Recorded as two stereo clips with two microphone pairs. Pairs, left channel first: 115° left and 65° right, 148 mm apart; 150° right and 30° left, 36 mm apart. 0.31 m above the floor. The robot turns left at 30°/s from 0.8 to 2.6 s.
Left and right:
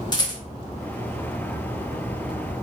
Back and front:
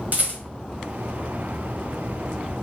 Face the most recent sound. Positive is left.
turn(degrees=5)